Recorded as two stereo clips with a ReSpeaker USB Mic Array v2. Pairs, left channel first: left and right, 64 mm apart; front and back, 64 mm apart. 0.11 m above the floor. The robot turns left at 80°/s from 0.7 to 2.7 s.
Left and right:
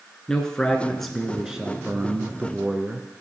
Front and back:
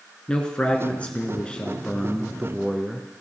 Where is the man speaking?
35° left, 1.1 m; by 3.1 s 125° right, 1.1 m.